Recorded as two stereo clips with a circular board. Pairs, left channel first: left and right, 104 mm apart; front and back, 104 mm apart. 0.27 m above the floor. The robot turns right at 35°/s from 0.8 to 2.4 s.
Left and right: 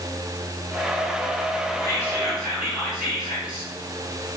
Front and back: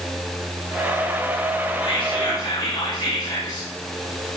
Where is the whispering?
35° right, 3.5 m; by 3.7 s 10° right, 3.5 m.